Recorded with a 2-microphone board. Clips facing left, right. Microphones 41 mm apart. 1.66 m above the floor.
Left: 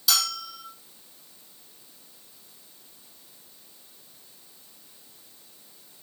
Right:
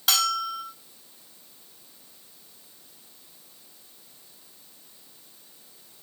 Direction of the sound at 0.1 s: 50° right (ahead or behind).